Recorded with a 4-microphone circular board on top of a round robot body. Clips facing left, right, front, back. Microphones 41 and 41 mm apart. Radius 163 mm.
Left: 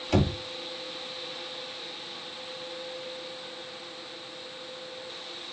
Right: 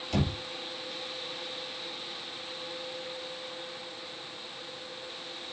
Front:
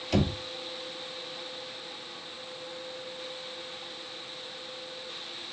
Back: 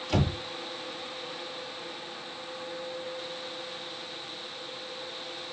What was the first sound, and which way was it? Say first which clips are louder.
Knocking: left 5 dB, front 1 dB; 100° left.